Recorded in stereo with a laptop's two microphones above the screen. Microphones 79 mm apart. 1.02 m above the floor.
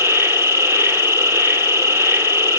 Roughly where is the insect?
Right.